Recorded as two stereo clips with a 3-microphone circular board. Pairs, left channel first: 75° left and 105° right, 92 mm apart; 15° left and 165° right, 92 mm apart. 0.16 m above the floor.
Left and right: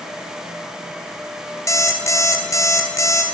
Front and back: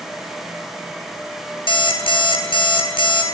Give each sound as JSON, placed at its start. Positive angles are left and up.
{"t": 1.7, "sound": "an alarm clock", "azimuth_deg": 20, "distance_m": 1.1}